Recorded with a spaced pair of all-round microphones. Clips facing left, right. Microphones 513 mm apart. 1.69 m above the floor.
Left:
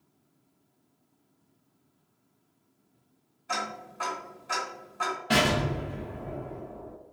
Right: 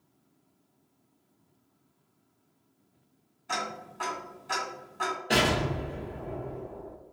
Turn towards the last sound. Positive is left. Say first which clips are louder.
# left 1 dB
turn(degrees=25)  # may be behind; listen again after turning